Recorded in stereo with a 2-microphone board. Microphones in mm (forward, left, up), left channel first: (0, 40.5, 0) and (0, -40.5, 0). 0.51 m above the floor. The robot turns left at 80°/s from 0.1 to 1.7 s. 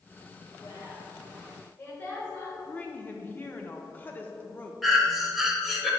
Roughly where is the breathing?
Centre.